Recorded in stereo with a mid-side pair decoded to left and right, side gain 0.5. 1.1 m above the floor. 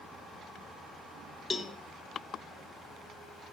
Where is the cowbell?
25° left, 0.7 m.